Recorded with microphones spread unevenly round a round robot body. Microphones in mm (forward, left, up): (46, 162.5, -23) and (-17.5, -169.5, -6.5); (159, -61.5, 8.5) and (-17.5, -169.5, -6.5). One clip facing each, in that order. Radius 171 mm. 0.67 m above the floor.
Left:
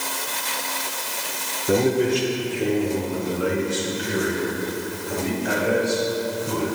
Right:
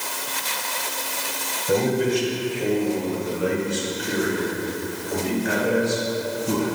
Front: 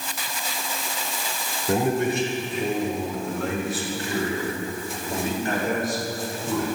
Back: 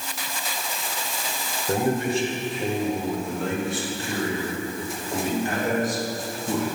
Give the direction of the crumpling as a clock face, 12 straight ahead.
I don't hear crumpling.